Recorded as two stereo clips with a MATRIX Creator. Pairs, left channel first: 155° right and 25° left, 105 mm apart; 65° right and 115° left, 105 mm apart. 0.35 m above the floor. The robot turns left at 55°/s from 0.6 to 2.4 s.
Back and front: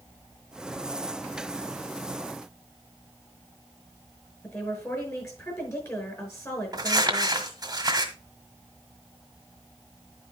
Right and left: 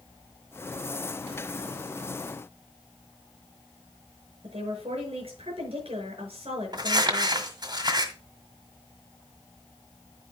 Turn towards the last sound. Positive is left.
turn(degrees=70)